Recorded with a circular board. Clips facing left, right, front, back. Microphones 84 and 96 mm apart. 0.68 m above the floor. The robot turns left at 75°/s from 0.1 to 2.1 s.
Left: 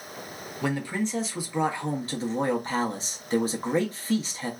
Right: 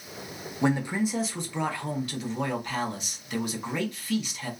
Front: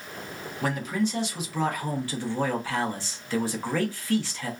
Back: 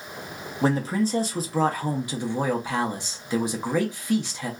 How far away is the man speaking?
About 0.6 m.